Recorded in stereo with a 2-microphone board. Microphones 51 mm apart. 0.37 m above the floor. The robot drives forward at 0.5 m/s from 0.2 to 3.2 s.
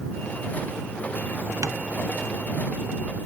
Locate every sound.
1.6 s tapping: 80° right, 0.7 m; by 1.8 s 75° right (ahead or behind), 0.7 m